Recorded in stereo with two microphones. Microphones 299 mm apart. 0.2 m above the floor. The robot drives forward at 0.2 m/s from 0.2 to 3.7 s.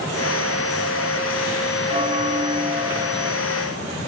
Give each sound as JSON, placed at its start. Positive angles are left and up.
{"t": 1.9, "sound": "a bell", "side_deg": -20}